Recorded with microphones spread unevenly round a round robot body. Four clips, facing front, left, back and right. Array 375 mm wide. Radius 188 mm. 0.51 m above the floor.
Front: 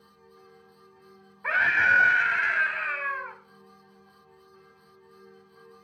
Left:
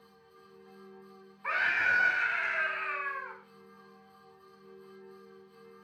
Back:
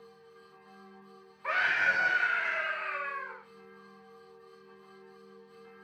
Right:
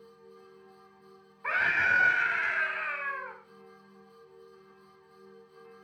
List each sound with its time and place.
1.4 s a scream: 25° right, 4 m; by 3.4 s straight ahead, 4 m